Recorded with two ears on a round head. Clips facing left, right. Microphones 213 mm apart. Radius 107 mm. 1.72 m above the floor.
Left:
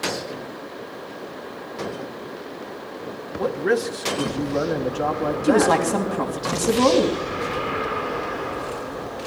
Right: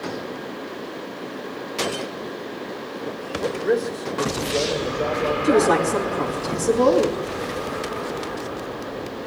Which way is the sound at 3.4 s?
85° left.